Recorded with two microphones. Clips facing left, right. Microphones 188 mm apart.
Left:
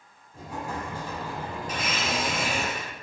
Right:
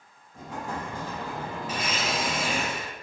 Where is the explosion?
10° left (ahead or behind), 1.2 m.